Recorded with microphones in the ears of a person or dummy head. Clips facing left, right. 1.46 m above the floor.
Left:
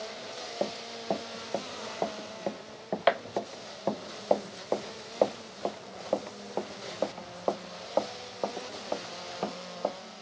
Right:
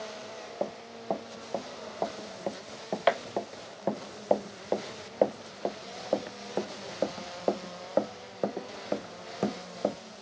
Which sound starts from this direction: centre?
Running footsteps, at 0.6 s.